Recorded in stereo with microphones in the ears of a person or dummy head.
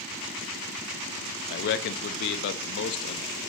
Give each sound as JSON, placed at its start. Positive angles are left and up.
{"t": 1.5, "sound": "a man speaking", "side_deg": 55, "distance_m": 0.8}